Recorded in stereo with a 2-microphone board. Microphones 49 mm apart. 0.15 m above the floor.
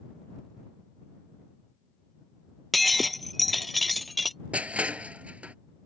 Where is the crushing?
30° right (ahead or behind).